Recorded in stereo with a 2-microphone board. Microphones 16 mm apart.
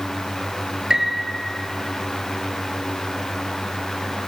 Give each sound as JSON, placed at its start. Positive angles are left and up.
{"t": 0.9, "sound": "a piano", "side_deg": -40, "distance_m": 1.2}